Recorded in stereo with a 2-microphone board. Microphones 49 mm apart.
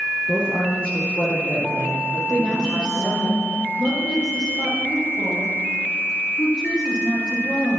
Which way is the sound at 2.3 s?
35° left (ahead or behind).